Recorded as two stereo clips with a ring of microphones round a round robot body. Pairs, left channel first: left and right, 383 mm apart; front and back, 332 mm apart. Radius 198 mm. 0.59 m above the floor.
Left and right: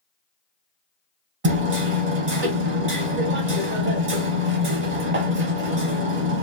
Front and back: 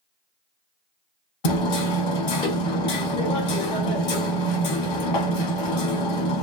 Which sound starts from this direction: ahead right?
Hammering, at 1.4 s.